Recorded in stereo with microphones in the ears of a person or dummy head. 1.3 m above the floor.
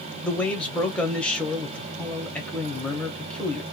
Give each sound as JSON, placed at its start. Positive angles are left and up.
{"t": 0.2, "sound": "a man speaking", "side_deg": 5, "distance_m": 0.9}